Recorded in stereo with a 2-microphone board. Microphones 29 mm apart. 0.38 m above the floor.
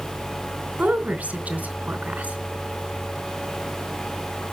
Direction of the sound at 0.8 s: 70° right (ahead or behind).